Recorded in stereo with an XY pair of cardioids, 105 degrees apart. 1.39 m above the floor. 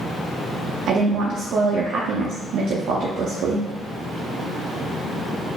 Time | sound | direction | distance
0.9 | a woman speaking | 60° right | 0.6 m